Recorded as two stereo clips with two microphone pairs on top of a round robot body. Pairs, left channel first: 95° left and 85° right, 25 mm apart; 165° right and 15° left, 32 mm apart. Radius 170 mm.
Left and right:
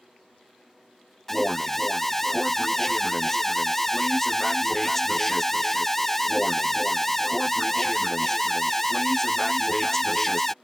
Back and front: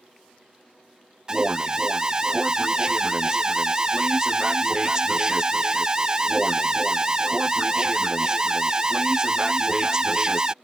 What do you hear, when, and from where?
1.3 s an alarm: 25° left